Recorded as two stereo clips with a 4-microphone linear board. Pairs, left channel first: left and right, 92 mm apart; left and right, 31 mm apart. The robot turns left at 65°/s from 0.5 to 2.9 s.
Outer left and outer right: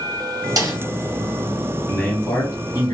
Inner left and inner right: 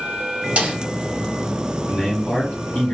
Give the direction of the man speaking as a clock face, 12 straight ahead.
6 o'clock.